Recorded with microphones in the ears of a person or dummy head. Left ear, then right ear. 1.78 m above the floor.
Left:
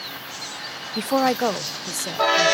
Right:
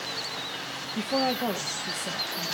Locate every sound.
0.9 s a woman speaking: 50° left (ahead or behind), 0.6 m; by 2.5 s 75° left (ahead or behind), 1.4 m